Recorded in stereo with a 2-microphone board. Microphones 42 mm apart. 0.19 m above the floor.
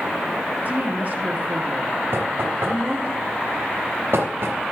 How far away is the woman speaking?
About 2.5 m.